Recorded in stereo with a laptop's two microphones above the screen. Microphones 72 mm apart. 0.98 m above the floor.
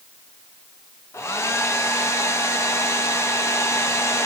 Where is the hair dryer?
35° left (ahead or behind), 0.6 m.